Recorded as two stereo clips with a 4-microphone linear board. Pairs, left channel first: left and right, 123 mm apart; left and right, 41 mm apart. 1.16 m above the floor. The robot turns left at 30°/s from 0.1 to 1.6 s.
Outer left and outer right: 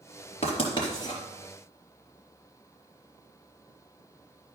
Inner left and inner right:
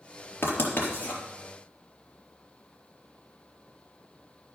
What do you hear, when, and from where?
0.4 s writing: 50° left (ahead or behind), 4 m; by 1.2 s 25° left (ahead or behind), 4 m